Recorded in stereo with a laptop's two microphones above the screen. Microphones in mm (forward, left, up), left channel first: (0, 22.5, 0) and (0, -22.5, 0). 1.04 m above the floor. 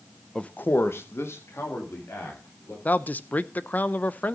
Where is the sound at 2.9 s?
40° left (ahead or behind), 0.5 m.